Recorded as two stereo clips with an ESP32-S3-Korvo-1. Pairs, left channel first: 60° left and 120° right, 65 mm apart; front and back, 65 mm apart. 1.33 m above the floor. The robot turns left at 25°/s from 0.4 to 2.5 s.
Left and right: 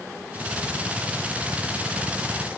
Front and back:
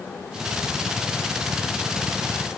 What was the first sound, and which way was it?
Only background noise.